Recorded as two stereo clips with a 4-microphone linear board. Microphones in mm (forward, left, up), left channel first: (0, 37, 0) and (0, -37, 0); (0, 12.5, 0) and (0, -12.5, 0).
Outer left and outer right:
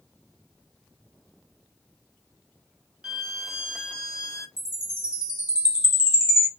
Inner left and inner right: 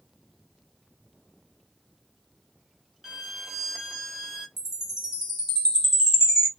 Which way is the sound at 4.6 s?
15° right (ahead or behind).